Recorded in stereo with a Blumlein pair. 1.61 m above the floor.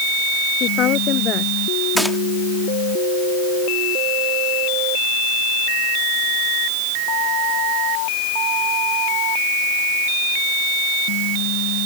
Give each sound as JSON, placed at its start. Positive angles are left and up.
{"t": 0.6, "sound": "a woman speaking", "azimuth_deg": 30}
{"t": 2.0, "sound": "a gunshot", "azimuth_deg": 0}